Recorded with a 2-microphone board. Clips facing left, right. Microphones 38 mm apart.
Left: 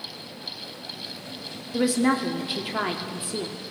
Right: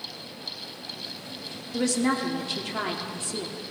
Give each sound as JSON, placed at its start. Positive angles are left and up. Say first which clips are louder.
{"t": 1.7, "sound": "a woman speaking", "louder": "left 3 dB", "side_deg": 15, "distance_m": 0.8}